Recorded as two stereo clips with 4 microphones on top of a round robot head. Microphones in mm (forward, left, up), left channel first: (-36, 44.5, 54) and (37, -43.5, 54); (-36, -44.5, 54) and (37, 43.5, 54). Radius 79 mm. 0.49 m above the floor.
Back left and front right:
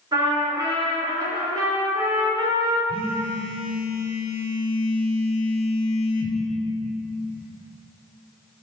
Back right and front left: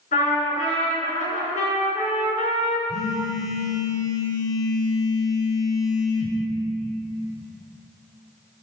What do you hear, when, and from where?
0.1 s a trumpet: 105° right, 4 m
2.9 s a phone buzzing: 170° left, 1.8 m